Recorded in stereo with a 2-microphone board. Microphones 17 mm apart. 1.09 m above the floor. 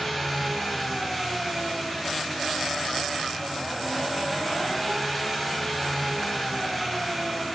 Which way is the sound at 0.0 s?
Centre (ahead or behind).